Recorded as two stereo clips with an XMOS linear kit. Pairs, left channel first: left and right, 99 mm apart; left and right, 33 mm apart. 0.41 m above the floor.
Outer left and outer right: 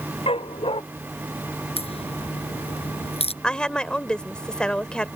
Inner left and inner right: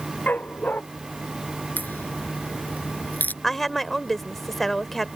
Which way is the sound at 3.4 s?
10° left (ahead or behind).